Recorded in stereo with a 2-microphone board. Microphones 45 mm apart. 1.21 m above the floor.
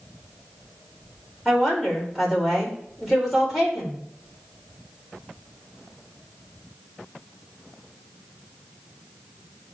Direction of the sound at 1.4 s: 5° left (ahead or behind).